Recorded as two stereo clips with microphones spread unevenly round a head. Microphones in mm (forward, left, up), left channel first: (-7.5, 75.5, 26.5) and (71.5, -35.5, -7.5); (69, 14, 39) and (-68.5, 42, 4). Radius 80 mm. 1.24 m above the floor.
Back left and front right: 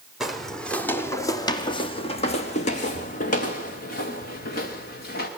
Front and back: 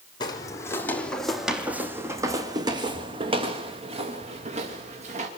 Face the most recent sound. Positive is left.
turn(degrees=125)